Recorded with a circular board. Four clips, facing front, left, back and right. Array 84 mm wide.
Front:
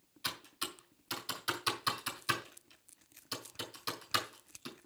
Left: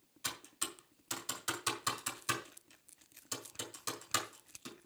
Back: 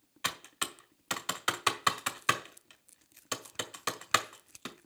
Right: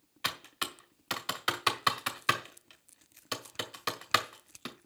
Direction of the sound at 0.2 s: 135° right.